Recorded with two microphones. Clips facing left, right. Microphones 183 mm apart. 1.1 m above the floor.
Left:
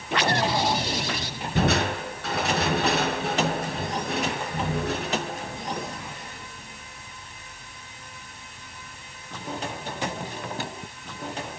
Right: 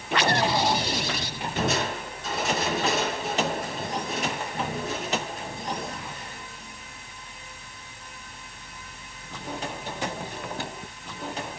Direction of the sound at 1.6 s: 65° left (ahead or behind).